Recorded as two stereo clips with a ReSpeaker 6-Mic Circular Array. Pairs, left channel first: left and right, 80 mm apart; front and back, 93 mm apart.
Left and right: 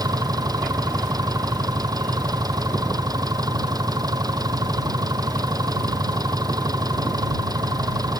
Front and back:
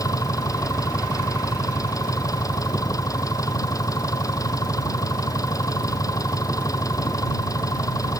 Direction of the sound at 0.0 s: 50° right.